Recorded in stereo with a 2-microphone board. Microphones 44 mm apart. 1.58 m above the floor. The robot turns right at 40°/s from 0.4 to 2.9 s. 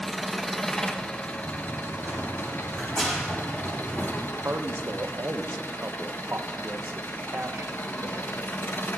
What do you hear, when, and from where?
0.0 s an engine running: 5° left, 1.0 m; by 9.0 s 105° left, 1.0 m
1.4 s running footsteps: 45° right (ahead or behind), 3.5 m; by 4.1 s 20° left (ahead or behind), 5 m
4.2 s a man speaking: 65° right (ahead or behind), 1.1 m